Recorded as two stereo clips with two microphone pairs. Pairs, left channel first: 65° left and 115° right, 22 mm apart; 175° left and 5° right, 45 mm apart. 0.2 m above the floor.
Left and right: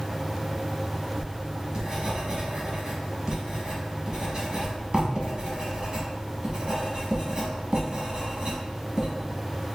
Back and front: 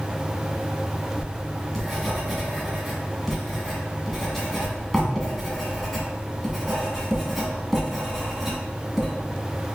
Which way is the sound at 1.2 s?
95° right.